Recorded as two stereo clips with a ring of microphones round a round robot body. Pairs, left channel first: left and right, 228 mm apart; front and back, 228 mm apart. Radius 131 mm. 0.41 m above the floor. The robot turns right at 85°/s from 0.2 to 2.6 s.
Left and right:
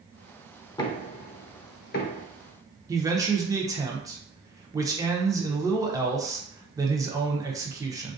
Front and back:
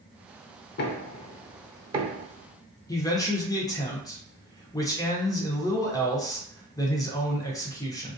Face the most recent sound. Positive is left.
turn(degrees=-40)